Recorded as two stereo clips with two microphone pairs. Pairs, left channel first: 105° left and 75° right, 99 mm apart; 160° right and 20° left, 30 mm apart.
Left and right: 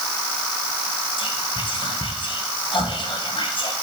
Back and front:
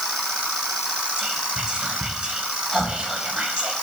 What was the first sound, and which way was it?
Whispering, 80° left.